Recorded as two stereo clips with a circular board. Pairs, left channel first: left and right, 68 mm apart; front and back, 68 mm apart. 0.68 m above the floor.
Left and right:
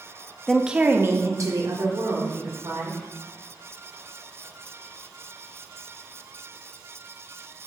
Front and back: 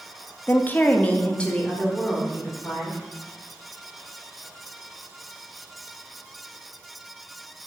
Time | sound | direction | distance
0.5 | a woman speaking | 15° left | 0.7 m